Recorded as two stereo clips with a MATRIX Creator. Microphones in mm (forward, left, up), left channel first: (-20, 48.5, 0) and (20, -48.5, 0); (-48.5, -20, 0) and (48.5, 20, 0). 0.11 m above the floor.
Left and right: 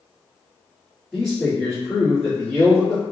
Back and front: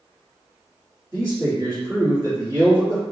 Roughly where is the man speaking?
Ahead.